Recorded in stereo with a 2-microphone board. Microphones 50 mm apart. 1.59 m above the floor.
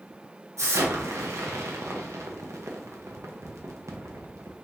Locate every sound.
0.6 s an explosion: 80° right, 0.6 m